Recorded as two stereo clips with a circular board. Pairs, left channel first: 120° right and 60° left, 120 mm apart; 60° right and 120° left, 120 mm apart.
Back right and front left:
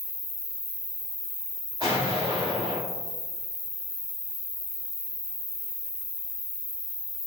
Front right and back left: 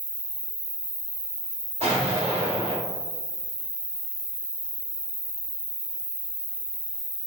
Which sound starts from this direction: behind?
An insect, at 0.0 s.